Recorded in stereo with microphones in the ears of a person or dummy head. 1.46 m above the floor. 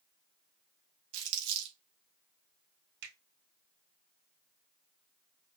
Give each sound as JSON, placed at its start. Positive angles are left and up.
{"t": 1.1, "sound": "crumpling", "side_deg": -75, "distance_m": 2.0}
{"t": 3.0, "sound": "a finger snap", "side_deg": -70, "distance_m": 3.5}